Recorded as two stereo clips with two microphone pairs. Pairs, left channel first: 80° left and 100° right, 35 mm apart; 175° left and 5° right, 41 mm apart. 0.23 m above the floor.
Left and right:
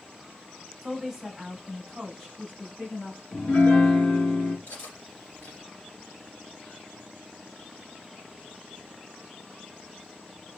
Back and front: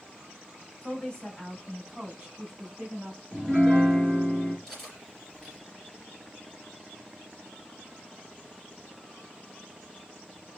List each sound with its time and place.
0.8 s a woman speaking: straight behind, 1.6 m; by 3.2 s 40° left, 1.9 m
3.3 s a piano: 90° left, 3 m
4.7 s cutlery clinking: 85° left, 2.5 m